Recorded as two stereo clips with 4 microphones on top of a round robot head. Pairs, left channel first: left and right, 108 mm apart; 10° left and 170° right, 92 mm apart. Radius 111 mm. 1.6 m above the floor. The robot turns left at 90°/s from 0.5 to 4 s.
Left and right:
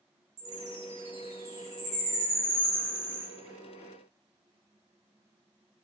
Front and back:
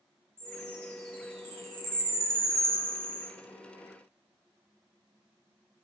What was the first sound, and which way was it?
A chime, 75° right.